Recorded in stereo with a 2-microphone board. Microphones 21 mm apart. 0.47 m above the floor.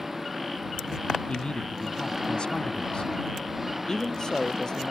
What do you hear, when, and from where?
0.0 s an engine running: 10° right (ahead or behind)
1.3 s a man speaking: 50° left (ahead or behind)
3.9 s a man speaking: 35° left (ahead or behind)